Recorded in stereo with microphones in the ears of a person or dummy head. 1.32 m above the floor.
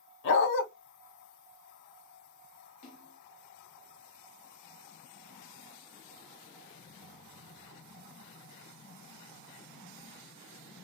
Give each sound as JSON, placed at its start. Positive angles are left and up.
{"t": 0.2, "sound": "a dog barking", "side_deg": 55, "distance_m": 1.7}
{"t": 2.8, "sound": "a splash", "side_deg": 35, "distance_m": 1.3}